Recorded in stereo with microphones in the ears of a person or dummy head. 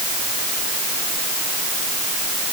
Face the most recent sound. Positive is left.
No sound to turn to.